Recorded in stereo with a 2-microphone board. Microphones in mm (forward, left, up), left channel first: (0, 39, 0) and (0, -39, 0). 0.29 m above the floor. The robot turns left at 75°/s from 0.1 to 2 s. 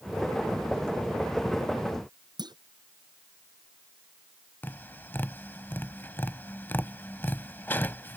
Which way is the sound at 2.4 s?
65° right (ahead or behind).